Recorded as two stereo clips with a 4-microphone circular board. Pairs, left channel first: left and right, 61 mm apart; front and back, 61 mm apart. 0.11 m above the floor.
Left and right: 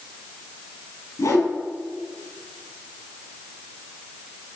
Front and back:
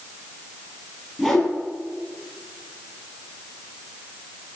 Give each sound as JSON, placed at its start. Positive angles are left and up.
{"t": 1.2, "sound": "a whoosh", "azimuth_deg": 95, "distance_m": 2.5}